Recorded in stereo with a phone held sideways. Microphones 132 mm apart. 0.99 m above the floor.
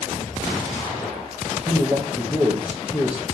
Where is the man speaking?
15° right (ahead or behind), 0.9 m.